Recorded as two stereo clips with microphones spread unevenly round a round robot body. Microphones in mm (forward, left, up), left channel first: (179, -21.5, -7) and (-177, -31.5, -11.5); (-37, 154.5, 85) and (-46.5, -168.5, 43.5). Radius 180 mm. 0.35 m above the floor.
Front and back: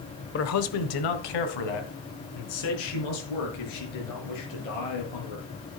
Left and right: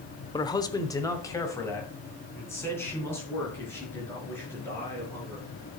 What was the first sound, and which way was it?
A man speaking, 10° left.